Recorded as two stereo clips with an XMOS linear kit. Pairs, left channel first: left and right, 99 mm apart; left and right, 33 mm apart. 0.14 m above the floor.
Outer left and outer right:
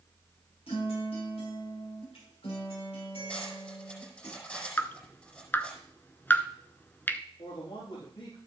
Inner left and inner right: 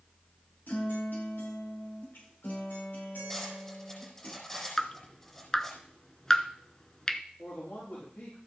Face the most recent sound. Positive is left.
turn(degrees=70)  # may be behind; listen again after turning